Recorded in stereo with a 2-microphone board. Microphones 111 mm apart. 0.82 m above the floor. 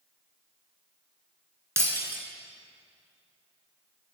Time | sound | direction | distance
1.8 | breaking glass | 25° right (ahead or behind) | 0.9 m